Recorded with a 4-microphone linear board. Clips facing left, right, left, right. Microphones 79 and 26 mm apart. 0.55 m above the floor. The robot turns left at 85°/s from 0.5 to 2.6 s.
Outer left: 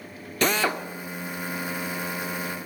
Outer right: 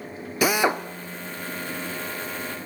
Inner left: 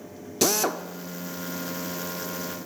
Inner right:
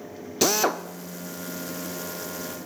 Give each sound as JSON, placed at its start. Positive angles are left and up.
{"t": 0.4, "sound": "a drill", "side_deg": -10, "distance_m": 0.5}